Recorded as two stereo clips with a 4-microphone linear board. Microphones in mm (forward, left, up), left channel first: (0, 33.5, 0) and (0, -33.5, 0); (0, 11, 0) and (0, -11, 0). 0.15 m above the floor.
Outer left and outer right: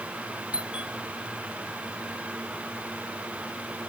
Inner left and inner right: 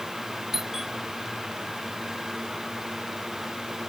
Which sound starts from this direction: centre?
A doorbell, at 0.5 s.